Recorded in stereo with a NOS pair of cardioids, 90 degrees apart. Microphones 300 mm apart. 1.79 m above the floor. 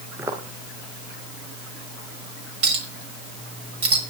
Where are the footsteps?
10° right, 6 m.